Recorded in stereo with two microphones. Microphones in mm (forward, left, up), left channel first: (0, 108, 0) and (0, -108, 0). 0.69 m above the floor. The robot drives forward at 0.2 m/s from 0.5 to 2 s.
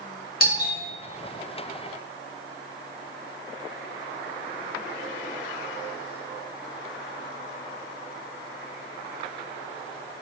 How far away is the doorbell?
About 1.8 m.